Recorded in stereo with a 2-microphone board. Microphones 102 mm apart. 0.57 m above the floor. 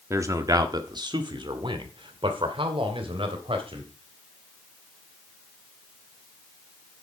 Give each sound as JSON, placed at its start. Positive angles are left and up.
{"t": 0.1, "sound": "a man speaking", "side_deg": -30, "distance_m": 1.2}